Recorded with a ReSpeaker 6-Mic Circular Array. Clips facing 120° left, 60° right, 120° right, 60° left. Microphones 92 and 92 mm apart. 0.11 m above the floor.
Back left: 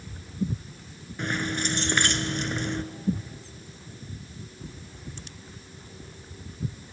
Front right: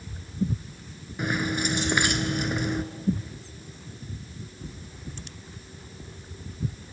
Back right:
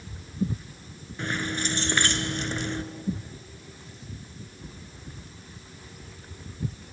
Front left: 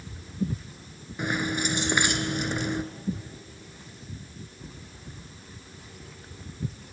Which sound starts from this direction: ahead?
Keys jangling, at 1.2 s.